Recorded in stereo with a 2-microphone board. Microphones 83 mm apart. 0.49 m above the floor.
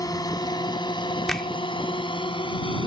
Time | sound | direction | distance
0.0 | a drone | 45° left (ahead or behind) | ?
1.3 | a finger snap | 5° left (ahead or behind) | ?